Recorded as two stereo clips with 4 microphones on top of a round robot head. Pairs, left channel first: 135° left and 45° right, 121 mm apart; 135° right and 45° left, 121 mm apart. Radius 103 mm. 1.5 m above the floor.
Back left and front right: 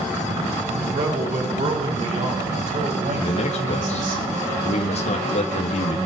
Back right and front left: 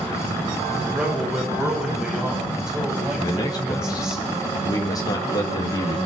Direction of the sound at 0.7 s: 40° right.